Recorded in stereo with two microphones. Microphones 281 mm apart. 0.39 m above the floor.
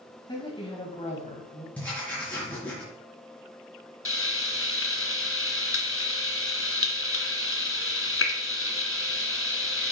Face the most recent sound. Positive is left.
turn(degrees=50)  # may be behind; listen again after turning